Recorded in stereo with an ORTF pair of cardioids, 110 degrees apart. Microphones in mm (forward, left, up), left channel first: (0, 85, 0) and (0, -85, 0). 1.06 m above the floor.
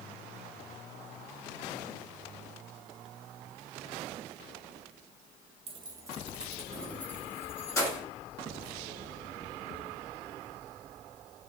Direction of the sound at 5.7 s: 35° right.